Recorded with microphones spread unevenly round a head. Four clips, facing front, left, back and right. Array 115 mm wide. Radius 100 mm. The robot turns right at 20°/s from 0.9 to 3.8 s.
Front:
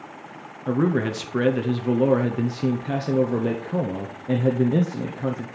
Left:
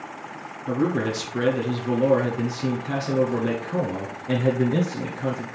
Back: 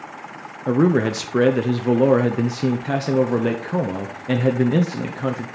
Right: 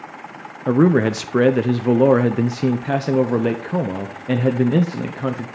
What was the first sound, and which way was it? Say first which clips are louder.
A man speaking: right 8 dB, back 5 dB; 95° right.